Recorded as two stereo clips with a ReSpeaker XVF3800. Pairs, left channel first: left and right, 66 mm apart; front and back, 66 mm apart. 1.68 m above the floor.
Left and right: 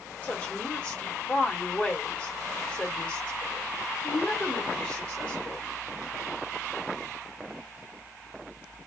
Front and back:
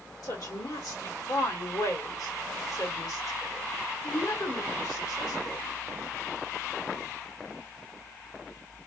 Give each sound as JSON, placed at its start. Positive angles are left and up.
{"t": 0.2, "sound": "a woman speaking", "azimuth_deg": 20, "distance_m": 1.7}